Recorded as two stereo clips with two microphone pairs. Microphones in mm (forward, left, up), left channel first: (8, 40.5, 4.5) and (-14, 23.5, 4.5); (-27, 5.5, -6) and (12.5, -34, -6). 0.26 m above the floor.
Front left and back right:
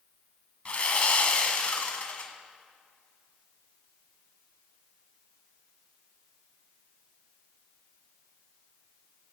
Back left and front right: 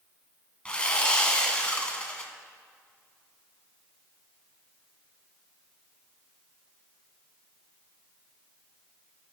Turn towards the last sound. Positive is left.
turn(degrees=65)